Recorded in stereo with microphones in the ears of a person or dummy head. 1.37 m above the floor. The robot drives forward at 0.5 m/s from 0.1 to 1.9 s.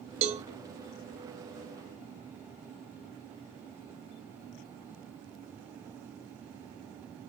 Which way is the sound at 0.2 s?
35° right (ahead or behind).